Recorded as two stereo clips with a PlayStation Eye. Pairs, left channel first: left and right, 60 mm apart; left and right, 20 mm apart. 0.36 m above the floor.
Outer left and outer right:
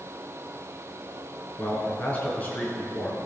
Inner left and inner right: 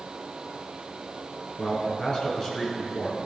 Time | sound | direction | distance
1.6 | a man speaking | 25° left (ahead or behind) | 4.5 m